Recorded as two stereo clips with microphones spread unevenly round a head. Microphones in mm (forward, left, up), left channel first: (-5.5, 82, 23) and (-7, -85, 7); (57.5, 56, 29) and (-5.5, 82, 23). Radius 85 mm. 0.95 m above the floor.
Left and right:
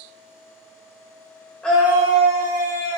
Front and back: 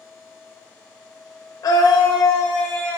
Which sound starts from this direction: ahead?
A scream, at 1.6 s.